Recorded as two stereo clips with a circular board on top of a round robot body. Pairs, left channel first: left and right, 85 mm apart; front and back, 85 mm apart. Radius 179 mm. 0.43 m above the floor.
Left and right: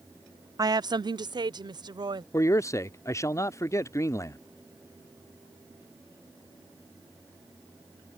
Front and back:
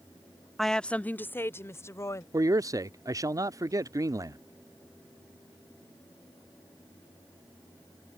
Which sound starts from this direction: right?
A woman speaking, at 0.6 s.